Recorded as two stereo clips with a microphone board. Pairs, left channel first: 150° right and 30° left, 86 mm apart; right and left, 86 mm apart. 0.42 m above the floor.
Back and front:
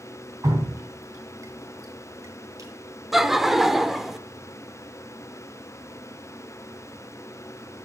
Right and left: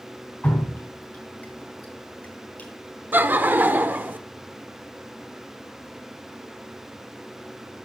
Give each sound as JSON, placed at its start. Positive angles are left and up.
{"t": 0.4, "sound": "dripping", "azimuth_deg": -20, "distance_m": 3.5}
{"t": 3.1, "sound": "laughter", "azimuth_deg": 110, "distance_m": 0.7}